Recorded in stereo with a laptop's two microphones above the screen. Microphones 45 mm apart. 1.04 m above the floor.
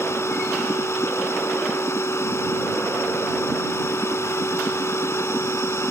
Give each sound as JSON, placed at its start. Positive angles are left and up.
{"t": 0.0, "sound": "a machine running", "side_deg": 85}